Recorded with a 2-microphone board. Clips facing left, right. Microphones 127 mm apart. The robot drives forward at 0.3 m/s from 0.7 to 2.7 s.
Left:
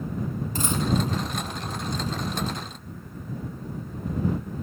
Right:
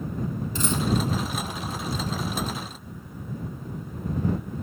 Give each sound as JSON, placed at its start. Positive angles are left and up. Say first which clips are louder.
{"t": 0.6, "sound": "a dropped coin", "louder": "even", "side_deg": 50, "distance_m": 5.0}